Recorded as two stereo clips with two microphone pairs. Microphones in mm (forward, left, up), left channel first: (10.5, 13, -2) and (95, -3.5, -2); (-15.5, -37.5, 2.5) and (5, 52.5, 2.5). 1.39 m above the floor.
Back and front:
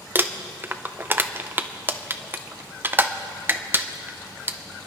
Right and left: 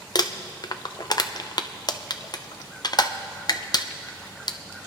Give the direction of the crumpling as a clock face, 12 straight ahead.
2 o'clock.